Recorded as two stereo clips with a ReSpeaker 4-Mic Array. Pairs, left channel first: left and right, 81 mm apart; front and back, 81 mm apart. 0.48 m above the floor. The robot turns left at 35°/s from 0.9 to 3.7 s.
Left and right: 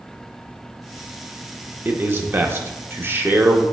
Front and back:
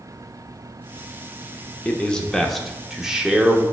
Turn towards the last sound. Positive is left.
turn(degrees=-130)